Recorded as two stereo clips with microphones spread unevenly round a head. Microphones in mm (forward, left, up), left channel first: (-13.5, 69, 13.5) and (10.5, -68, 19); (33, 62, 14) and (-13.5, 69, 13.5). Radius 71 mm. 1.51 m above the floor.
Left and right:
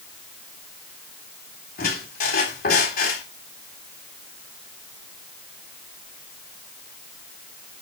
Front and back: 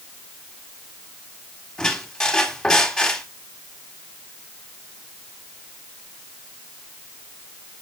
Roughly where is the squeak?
Left.